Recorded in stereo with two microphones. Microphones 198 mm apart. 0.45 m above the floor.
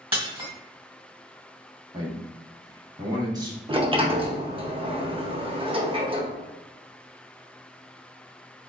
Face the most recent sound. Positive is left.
turn(degrees=-25)  # may be behind; listen again after turning